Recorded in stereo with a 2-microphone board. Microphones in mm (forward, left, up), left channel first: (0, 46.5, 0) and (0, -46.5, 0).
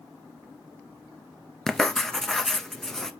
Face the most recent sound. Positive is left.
turn(degrees=5)  # may be behind; listen again after turning